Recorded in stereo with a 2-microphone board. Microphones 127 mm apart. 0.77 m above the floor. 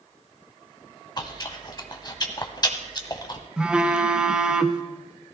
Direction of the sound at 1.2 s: 35° left (ahead or behind).